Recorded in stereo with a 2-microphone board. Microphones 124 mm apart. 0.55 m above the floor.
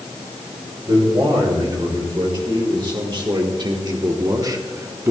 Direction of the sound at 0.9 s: 40° right (ahead or behind).